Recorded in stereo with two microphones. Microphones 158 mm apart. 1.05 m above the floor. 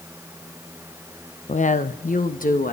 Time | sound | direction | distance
1.5 | a woman speaking | 45° left (ahead or behind) | 0.5 m